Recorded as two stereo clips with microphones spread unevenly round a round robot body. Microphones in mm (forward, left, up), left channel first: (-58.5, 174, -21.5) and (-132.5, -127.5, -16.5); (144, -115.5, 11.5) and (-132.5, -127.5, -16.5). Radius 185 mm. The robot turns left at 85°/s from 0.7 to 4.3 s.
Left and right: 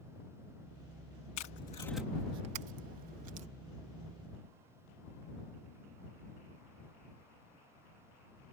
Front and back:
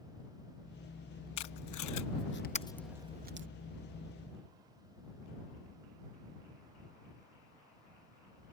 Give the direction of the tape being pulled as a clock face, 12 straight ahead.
11 o'clock.